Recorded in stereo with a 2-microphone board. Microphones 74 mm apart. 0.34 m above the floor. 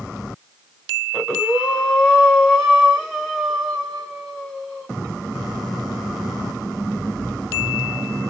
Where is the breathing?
Centre (ahead or behind), 1.7 m.